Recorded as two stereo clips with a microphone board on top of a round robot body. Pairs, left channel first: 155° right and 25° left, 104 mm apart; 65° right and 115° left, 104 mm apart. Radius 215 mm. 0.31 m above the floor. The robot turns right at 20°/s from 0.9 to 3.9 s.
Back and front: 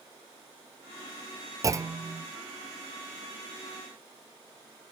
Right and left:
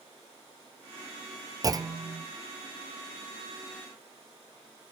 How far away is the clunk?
About 0.6 m.